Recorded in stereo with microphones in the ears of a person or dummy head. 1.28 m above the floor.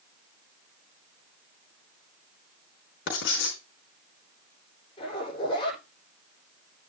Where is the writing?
70° left (ahead or behind), 4.5 m.